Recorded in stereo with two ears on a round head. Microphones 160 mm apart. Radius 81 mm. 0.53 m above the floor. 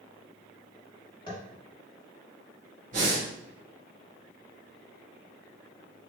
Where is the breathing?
40° right (ahead or behind), 1.9 m.